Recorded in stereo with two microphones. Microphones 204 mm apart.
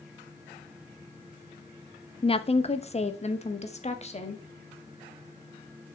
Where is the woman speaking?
25° left (ahead or behind), 0.8 m; by 4.4 s 30° left (ahead or behind), 2 m.